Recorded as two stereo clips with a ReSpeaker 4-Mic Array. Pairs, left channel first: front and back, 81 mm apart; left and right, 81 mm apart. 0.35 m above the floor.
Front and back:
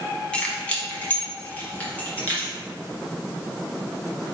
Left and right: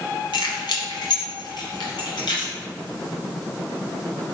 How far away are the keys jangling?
About 1.5 m.